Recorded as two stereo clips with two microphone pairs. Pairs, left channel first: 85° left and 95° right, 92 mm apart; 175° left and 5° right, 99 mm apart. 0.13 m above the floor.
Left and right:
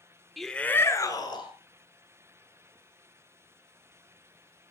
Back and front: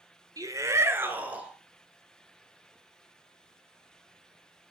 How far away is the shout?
About 1.2 m.